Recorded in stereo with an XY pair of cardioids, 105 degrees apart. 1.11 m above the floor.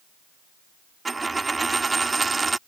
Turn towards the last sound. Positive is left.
turn(degrees=-25)